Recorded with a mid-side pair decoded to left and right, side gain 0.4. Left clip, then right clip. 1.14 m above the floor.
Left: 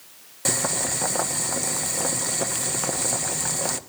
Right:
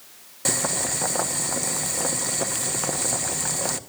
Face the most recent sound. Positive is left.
turn(degrees=5)